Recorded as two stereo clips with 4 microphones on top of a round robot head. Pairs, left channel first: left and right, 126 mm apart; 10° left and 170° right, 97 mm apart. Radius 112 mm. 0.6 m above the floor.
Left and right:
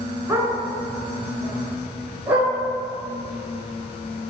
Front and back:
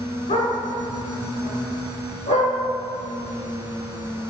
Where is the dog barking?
15° right, 3.5 m.